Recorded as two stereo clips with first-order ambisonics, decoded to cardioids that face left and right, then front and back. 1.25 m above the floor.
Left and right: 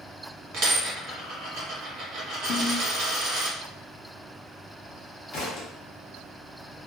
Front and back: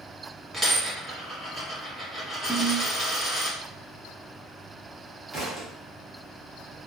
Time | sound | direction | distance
0.5 | a dropped coin | 95° right | 1.4 m
2.5 | a ringtone | 95° left | 0.7 m
5.3 | a thud | 120° left | 0.8 m